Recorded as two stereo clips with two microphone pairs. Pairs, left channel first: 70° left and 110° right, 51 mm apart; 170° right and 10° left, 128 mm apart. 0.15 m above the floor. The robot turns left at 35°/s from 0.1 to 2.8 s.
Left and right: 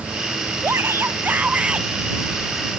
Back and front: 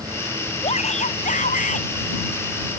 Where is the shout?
140° right; by 1.9 s 175° left.